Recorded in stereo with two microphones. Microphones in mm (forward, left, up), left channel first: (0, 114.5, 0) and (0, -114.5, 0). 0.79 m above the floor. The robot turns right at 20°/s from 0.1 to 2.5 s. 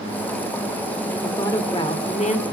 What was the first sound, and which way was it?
A woman speaking, 10° left (ahead or behind).